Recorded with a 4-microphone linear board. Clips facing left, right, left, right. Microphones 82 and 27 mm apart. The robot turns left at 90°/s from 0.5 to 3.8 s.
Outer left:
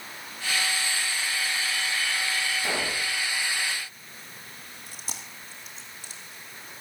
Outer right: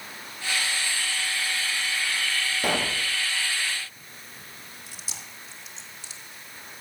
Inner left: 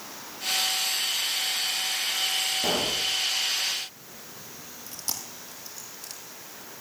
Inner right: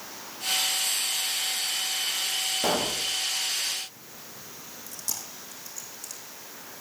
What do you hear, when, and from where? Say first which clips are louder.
2.6 s a pop: outer right 3 dB, even; 105° right, 4 m; by 3.0 s 140° right, 4 m
4.9 s chewing: outer left 2 dB, inner left 2 dB; 50° left (ahead or behind), 2.5 m